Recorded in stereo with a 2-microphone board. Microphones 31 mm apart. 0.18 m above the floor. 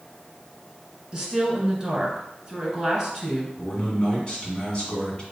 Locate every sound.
1.1 s a woman speaking: 10° right (ahead or behind), 1.9 m
3.6 s a man speaking: 30° left (ahead or behind), 1.8 m